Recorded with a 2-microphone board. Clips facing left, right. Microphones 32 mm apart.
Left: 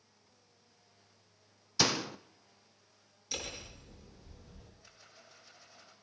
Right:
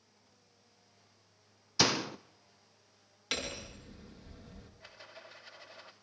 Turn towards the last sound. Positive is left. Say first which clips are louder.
# right 7 dB
turn(degrees=-55)  # may be behind; listen again after turning